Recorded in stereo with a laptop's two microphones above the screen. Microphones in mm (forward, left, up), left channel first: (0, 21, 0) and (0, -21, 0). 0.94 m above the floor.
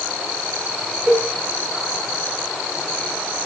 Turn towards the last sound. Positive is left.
turn(degrees=-35)  # may be behind; listen again after turning